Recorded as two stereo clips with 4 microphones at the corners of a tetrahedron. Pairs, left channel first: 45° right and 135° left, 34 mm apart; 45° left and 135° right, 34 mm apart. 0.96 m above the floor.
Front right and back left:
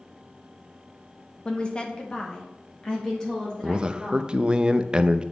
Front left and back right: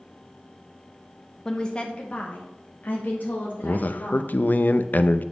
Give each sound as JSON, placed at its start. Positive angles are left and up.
{"t": 1.4, "sound": "a woman speaking", "azimuth_deg": -15, "distance_m": 0.8}
{"t": 3.6, "sound": "a man speaking", "azimuth_deg": 75, "distance_m": 0.5}